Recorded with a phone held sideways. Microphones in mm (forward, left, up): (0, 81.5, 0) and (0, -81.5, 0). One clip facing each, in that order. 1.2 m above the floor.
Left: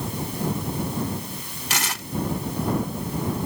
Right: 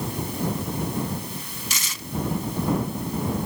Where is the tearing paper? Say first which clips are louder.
Left 7 dB; 70° left (ahead or behind).